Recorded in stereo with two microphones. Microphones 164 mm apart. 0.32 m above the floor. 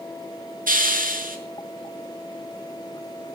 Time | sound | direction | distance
0.7 | a hiss | 55° right (ahead or behind) | 5 m